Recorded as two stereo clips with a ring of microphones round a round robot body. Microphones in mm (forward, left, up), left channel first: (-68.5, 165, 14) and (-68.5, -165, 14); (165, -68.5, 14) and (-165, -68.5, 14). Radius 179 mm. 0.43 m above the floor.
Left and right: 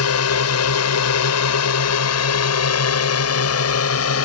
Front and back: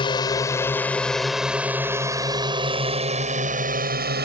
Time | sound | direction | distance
0.0 | a drone | 70° left | ?